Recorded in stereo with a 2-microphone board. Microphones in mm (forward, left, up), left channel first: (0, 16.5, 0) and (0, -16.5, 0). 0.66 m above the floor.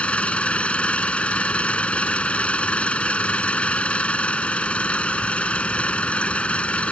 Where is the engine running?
35° left (ahead or behind).